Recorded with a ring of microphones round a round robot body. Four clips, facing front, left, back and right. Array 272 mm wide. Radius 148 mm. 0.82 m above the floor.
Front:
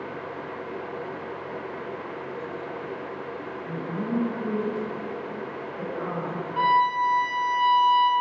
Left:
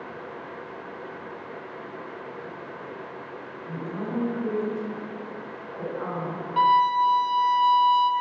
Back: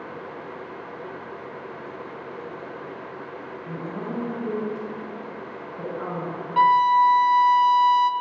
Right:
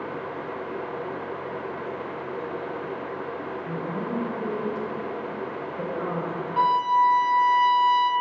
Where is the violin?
175° left, 1.1 m.